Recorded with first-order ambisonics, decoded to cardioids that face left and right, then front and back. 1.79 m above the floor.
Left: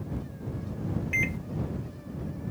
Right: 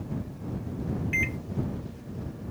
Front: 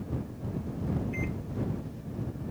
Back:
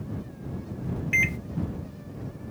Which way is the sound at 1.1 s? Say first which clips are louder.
Even, back 14 dB; straight behind.